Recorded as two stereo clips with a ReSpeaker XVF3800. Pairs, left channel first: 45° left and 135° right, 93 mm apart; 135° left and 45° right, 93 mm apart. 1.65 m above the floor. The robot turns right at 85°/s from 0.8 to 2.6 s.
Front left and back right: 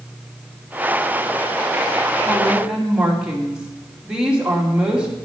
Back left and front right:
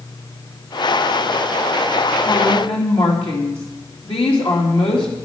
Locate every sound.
2.3 s a woman speaking: 115° left, 3 m; by 5.1 s 145° left, 3 m